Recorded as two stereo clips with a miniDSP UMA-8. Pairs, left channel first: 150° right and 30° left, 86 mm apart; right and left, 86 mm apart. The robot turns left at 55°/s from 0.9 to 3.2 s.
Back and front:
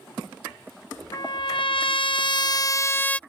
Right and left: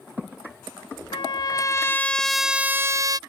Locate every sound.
1.1 s a trumpet: 110° right; by 3.2 s 135° left